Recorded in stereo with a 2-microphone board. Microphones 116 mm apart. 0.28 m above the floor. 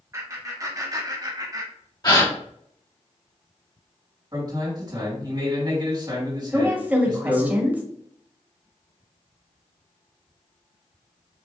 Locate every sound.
0.1 s laughter: 30° right (ahead or behind), 2.5 m
2.0 s a gasp: 35° left (ahead or behind), 1.8 m
4.3 s a man speaking: 40° right (ahead or behind), 2.5 m
6.5 s a woman speaking: 15° right (ahead or behind), 0.9 m